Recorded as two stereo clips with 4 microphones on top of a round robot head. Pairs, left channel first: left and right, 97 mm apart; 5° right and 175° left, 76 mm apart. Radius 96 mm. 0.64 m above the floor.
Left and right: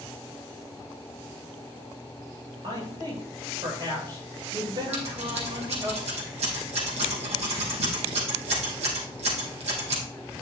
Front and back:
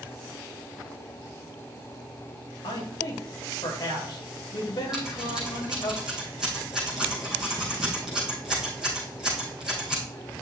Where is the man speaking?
40° right, 3.5 m.